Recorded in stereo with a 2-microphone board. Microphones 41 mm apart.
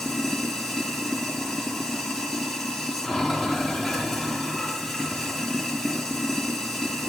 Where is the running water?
Centre (ahead or behind), 4.5 m.